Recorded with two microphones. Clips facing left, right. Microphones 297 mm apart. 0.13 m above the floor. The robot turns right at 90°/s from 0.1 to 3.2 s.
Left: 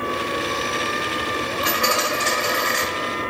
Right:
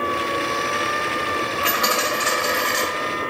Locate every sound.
1.6 s a dropped coin: 130° left, 1.2 m; by 2.9 s 120° right, 1.2 m